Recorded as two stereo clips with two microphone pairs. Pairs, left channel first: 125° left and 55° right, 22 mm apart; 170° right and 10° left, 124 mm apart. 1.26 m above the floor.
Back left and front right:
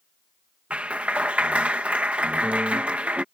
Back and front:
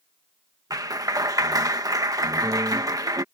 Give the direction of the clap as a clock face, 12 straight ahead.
2 o'clock.